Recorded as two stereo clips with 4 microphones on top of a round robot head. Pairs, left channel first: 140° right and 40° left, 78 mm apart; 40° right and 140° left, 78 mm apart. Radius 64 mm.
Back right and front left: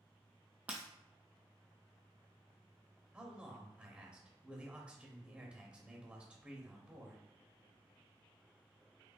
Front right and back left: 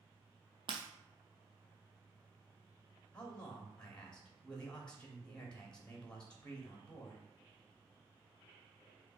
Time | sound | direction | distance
0.7 | breaking glass | 110° left | 0.9 m
3.1 | a man speaking | 10° left | 1.2 m